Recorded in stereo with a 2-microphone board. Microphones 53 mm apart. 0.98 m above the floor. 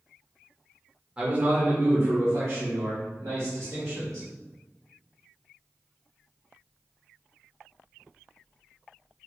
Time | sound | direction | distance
1.2 | a man speaking | 20° right (ahead or behind) | 0.9 m